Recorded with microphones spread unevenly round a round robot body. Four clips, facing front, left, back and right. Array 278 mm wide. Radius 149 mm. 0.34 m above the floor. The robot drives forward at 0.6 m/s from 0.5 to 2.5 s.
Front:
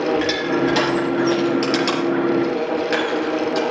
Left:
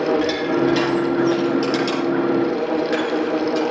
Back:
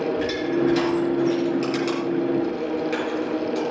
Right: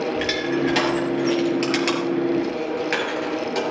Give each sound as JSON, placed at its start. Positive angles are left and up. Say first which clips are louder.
{"t": 0.2, "sound": "crushing", "louder": "left 4 dB, front 3 dB", "azimuth_deg": -35, "distance_m": 6.5}